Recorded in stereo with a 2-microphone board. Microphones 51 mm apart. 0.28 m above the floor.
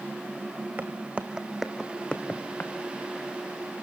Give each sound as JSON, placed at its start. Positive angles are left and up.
{"t": 0.8, "sound": "footsteps", "side_deg": -40, "distance_m": 1.1}